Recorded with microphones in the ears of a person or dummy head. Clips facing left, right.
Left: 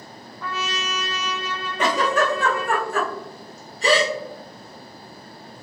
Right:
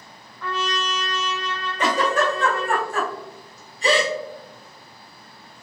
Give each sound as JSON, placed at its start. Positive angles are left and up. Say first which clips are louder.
{"t": 0.4, "sound": "a trumpet", "louder": "right 3 dB", "side_deg": 5, "distance_m": 0.6}
{"t": 1.8, "sound": "a giggle", "louder": "even", "side_deg": 60, "distance_m": 1.0}